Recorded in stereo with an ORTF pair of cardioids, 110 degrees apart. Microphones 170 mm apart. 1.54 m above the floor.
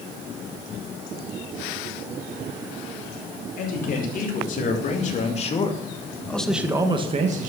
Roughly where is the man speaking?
Ahead left.